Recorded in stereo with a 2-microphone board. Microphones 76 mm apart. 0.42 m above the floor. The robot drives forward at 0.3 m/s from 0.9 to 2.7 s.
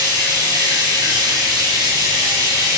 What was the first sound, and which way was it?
Running water, 70° right (ahead or behind).